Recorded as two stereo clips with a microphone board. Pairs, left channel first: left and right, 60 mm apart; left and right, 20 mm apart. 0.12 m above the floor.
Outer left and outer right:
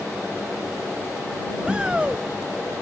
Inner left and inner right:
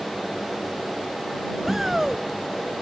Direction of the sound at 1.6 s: 15° right (ahead or behind).